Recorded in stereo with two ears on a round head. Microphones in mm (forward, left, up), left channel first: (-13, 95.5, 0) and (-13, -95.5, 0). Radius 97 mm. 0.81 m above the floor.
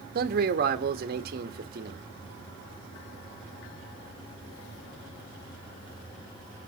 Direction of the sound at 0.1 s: 50° right (ahead or behind).